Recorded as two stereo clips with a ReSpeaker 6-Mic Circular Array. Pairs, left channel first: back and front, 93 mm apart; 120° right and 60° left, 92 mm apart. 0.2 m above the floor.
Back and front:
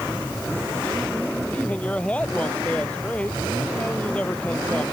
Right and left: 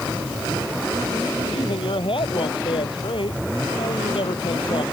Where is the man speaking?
105° right.